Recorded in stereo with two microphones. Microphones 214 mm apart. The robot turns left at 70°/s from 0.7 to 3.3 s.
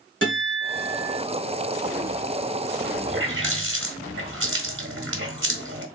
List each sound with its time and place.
0.2 s a guitar: 90° right, 1.6 m; by 1.2 s 125° right, 1.6 m
3.1 s a running tap: 55° right (ahead or behind), 1.1 m; by 5.8 s 60° right (ahead or behind), 1.1 m